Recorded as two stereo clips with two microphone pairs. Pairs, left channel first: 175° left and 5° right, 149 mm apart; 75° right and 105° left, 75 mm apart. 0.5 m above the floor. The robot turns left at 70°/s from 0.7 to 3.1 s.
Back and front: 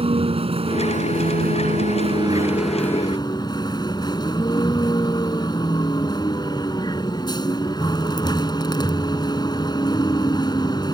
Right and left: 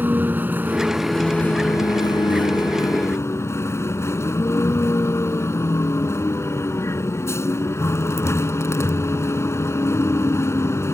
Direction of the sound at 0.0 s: 40° left.